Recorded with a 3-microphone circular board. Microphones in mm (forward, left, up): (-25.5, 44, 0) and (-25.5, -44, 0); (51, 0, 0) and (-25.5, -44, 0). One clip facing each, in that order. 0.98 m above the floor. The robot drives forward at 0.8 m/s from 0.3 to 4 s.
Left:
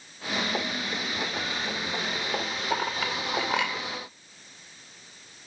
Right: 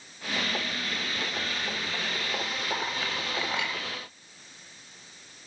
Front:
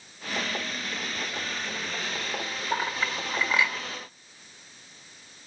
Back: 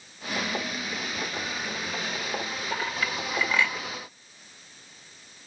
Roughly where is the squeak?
No squeak in this recording.